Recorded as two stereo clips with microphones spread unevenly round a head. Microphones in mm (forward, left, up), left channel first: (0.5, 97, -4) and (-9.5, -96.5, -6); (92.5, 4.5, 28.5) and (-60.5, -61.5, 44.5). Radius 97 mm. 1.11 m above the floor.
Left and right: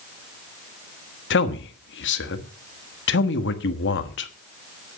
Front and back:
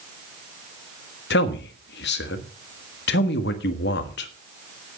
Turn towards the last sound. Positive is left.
turn(degrees=55)